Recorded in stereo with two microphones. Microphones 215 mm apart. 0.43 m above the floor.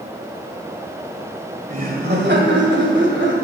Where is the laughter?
40° right (ahead or behind), 1.9 m; by 3.4 s 60° right (ahead or behind), 1.9 m.